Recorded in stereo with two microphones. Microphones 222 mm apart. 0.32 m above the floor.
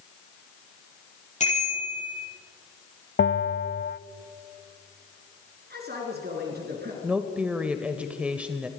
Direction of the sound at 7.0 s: 5° right (ahead or behind).